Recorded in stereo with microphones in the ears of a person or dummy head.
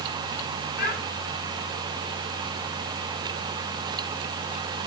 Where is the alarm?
No alarm in this recording.